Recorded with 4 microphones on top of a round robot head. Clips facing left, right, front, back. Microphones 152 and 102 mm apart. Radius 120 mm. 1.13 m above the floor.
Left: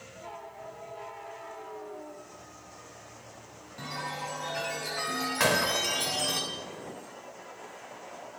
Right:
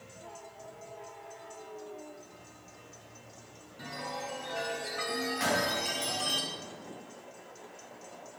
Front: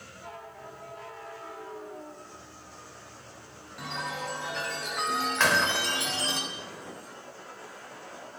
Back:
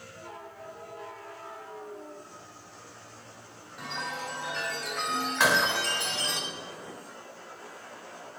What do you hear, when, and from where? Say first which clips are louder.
3.8 s a chime: left 1 dB, front 1 dB; 90° left, 7 m
5.4 s a gunshot: left 5 dB, back 2 dB; 100° left, 1.4 m